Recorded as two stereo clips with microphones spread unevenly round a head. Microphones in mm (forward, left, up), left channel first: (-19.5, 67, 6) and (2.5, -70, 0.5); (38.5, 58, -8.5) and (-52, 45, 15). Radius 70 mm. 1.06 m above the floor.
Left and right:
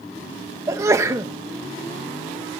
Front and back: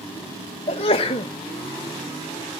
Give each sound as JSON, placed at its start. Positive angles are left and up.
{"t": 0.7, "sound": "a sneeze", "azimuth_deg": -10, "distance_m": 0.9}